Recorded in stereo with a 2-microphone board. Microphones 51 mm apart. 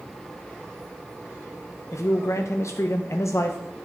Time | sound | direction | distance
1.9 | a man speaking | 65° left (ahead or behind) | 0.6 m